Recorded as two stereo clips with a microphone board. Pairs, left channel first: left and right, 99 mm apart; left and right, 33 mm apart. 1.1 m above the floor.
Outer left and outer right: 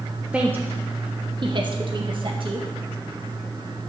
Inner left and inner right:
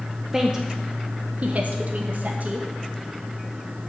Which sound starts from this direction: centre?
A woman speaking, at 0.3 s.